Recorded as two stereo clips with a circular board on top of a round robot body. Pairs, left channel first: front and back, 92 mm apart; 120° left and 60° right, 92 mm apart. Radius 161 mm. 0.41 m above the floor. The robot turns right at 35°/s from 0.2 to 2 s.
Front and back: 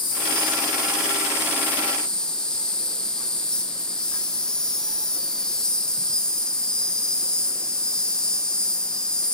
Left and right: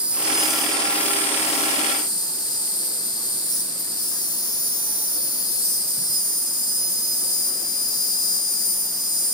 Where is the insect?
20° left, 4.5 m; by 9.3 s 80° left, 4.5 m.